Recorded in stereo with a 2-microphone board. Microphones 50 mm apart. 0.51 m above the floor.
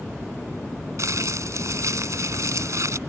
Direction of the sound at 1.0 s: 75° right (ahead or behind).